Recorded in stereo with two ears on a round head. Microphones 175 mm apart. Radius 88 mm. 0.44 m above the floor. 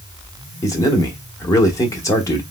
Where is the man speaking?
15° left (ahead or behind), 0.9 m.